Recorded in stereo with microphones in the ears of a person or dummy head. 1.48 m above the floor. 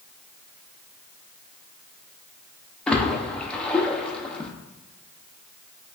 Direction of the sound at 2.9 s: 10° left (ahead or behind).